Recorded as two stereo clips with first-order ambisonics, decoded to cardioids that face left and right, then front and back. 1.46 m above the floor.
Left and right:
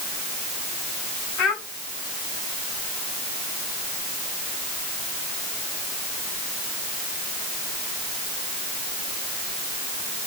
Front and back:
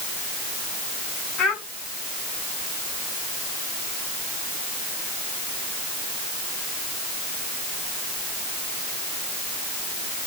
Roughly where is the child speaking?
Ahead left.